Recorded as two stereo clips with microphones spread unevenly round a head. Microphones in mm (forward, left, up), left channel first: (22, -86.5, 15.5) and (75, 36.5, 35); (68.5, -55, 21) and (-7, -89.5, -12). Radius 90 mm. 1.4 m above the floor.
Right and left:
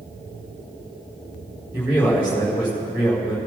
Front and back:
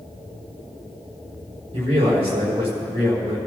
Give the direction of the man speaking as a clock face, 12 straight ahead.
7 o'clock.